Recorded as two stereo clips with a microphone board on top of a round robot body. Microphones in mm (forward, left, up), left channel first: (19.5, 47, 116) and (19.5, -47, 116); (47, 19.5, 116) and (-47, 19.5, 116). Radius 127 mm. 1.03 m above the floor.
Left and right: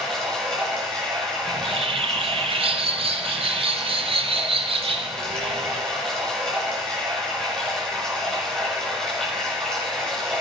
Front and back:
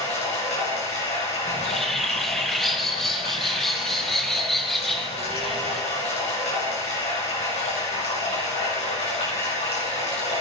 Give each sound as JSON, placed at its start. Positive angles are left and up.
{"t": 0.0, "sound": "running water", "azimuth_deg": 5, "distance_m": 7.0}
{"t": 1.5, "sound": "a bird", "azimuth_deg": -85, "distance_m": 1.4}